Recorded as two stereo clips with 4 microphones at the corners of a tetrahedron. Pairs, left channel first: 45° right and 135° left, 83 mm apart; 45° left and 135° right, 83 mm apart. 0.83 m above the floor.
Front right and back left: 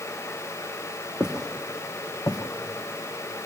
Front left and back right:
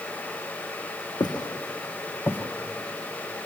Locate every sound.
1.2 s footsteps: 55° left, 1.6 m; by 3.4 s 45° right, 2.5 m